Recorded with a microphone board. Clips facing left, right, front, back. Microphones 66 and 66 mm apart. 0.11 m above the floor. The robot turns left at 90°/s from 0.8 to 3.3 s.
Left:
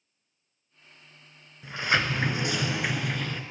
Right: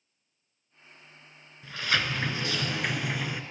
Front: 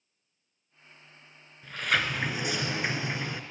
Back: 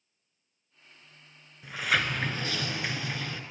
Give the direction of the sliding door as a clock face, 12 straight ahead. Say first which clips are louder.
Left 3 dB, even; 8 o'clock.